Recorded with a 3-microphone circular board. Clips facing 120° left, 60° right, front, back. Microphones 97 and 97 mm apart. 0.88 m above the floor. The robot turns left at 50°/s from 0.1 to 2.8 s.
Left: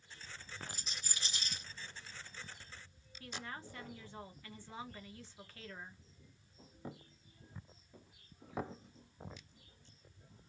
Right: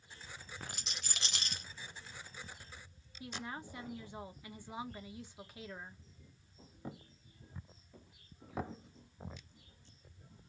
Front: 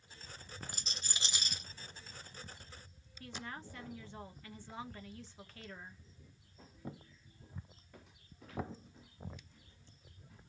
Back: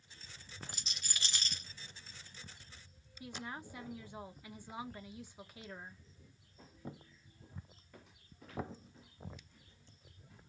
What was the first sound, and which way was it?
A rattle, 45° right.